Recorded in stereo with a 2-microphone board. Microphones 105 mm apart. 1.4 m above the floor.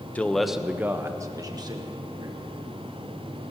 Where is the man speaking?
15° left (ahead or behind), 0.8 m; by 2.5 s 50° right (ahead or behind), 1.8 m.